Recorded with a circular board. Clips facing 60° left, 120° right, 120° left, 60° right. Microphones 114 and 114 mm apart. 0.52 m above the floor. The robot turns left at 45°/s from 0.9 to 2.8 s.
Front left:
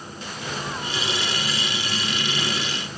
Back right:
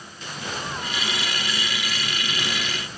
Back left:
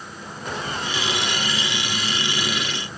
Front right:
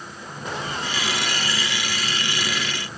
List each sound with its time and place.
Only background noise.